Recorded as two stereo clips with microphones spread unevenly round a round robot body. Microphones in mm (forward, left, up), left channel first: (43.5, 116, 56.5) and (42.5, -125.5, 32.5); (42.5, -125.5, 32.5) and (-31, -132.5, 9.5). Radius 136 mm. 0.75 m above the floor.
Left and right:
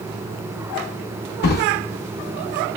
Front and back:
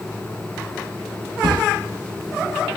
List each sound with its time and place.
1.4 s a drawer: 145° left, 0.7 m